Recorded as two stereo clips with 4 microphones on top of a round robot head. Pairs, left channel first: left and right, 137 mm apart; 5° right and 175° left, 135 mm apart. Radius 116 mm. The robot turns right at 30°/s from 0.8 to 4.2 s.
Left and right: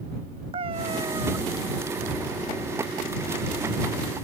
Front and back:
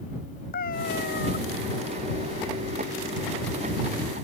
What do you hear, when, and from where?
0.5 s a cat meowing: 30° right; by 1.4 s 15° right